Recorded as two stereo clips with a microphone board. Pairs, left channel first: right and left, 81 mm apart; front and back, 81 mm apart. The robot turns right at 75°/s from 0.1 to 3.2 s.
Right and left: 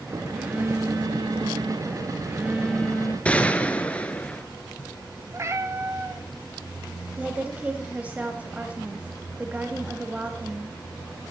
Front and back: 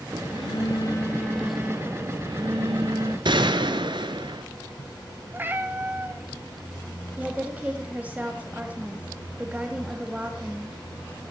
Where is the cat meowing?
125° left, 0.9 m.